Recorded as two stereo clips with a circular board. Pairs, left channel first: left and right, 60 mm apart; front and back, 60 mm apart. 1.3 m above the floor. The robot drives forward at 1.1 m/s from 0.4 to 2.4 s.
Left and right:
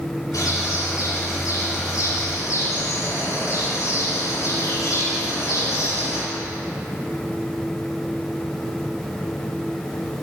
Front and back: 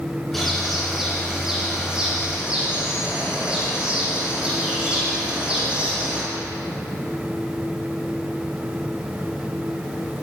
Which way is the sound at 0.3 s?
90° left.